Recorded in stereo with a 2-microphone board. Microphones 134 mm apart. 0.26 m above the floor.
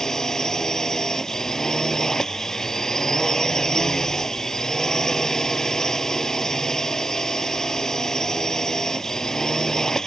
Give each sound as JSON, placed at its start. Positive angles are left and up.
{"t": 0.0, "sound": "a drone", "side_deg": 5}